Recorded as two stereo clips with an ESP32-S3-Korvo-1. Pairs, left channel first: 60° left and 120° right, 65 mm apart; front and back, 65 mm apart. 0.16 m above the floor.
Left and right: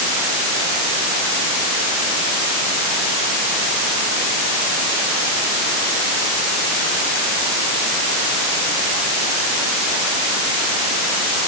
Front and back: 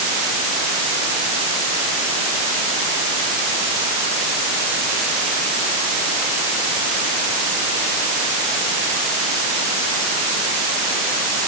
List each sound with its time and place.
Only background noise.